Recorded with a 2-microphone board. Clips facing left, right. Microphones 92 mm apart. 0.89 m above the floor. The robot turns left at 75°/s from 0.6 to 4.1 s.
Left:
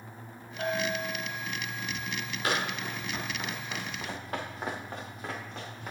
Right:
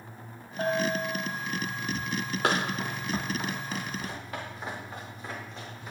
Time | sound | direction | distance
0.6 | a bell | 30° right | 2.5 m
2.4 | running footsteps | 75° right (ahead or behind) | 3.5 m